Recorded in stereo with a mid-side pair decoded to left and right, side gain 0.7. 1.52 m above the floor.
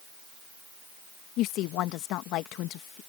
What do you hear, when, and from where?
1.4 s a woman speaking: 60° left